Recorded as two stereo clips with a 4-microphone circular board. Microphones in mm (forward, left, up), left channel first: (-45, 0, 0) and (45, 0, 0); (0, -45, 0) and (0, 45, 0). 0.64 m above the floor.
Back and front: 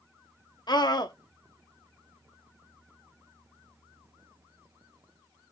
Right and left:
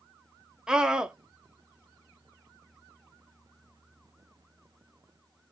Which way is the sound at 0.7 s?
170° left.